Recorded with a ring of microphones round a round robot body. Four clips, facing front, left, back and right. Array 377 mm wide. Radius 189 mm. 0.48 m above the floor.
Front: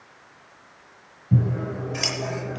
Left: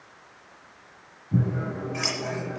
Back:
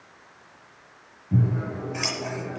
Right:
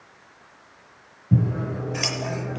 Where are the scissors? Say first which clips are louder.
Right 3 dB, front 1 dB; 70° right, 8.5 m.